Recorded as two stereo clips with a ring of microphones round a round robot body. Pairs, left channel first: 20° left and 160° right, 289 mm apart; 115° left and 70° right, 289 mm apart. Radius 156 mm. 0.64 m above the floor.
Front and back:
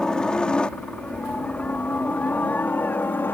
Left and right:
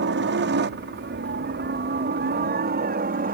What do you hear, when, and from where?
0.0 s a helicopter: 65° right; by 3.4 s 55° right